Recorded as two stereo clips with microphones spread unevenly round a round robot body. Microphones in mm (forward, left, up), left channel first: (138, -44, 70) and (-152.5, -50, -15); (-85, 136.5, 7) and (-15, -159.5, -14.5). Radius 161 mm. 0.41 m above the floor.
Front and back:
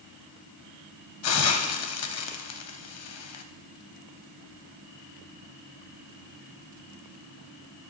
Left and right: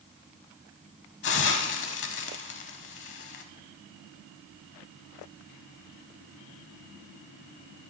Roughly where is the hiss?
Ahead left.